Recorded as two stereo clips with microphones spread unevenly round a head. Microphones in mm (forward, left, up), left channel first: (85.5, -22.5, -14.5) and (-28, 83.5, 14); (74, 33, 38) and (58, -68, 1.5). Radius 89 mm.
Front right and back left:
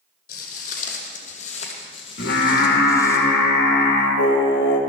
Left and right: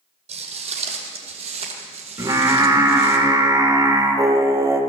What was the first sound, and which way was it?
Footsteps, 80° right.